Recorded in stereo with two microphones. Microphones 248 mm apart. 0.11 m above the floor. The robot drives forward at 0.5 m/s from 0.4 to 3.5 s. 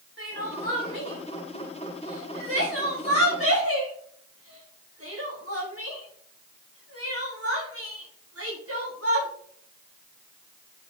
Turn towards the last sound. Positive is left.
turn(degrees=-65)  # may be behind; listen again after turning